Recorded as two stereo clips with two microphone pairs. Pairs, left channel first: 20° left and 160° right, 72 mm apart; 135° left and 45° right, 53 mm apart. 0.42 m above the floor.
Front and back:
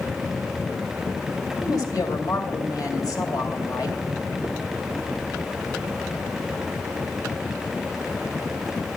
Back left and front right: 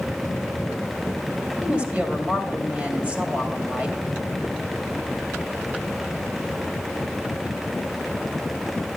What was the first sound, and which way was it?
A woman speaking, 15° left.